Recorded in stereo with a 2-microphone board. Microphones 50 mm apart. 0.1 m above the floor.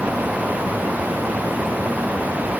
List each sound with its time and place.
Only background noise.